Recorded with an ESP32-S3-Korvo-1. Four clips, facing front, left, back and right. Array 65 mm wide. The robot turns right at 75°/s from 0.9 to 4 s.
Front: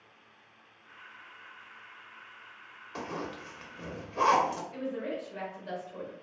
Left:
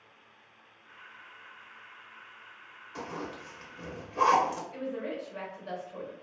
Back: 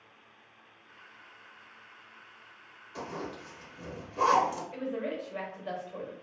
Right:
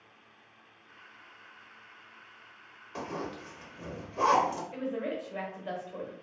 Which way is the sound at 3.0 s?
35° right.